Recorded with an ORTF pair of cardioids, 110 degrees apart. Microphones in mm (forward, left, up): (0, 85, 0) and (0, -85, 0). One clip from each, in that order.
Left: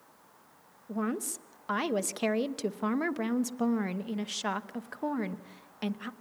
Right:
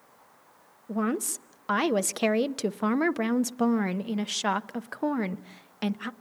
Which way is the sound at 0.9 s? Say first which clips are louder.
Right 5 dB; 25° right.